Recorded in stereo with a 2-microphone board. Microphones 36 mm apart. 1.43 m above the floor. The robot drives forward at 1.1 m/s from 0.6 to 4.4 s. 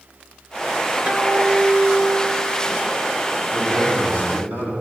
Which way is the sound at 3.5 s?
65° right (ahead or behind).